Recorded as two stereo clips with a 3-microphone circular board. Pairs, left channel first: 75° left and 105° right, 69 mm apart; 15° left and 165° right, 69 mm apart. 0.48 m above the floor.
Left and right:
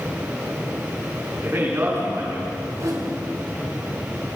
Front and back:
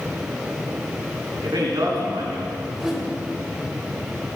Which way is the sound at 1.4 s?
160° right.